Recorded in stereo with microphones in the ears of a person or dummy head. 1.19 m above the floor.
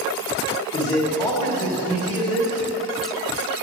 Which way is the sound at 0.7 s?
25° left (ahead or behind).